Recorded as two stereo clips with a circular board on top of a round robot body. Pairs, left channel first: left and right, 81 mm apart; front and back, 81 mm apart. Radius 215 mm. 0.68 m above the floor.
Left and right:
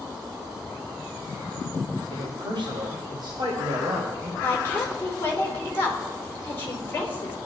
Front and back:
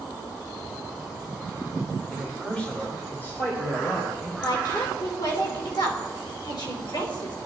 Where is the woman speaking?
25° left, 3.5 m.